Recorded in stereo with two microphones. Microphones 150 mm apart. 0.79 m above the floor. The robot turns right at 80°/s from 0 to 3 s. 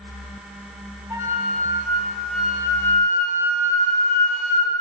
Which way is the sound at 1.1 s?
20° right (ahead or behind).